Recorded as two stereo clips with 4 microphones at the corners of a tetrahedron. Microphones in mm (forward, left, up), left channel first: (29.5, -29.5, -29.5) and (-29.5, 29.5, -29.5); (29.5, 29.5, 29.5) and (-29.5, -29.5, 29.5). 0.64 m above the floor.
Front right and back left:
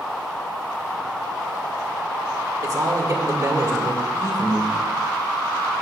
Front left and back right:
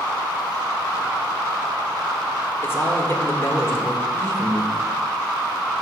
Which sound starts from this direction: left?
A man speaking, at 2.6 s.